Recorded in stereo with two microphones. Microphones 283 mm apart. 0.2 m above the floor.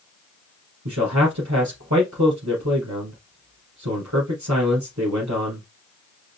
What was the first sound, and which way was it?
A man speaking, 70° right (ahead or behind).